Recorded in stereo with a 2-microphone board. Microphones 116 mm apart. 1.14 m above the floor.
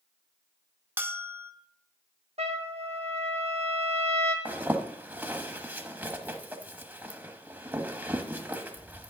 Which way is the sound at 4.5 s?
15° right (ahead or behind).